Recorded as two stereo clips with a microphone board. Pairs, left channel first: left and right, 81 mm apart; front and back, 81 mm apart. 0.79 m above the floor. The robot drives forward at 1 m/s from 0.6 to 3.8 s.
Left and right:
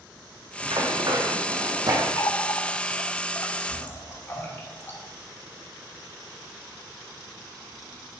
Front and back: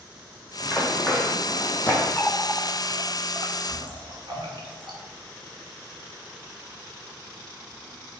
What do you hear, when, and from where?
0.6 s running footsteps: 65° right, 3 m
2.2 s a running tap: 70° left, 0.7 m; by 5.0 s 155° left, 1.5 m